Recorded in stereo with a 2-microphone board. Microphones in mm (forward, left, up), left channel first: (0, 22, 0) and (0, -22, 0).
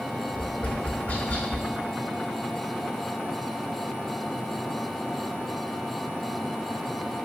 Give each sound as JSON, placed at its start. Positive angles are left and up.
{"t": 0.3, "sound": "tapping", "side_deg": 40, "distance_m": 2.5}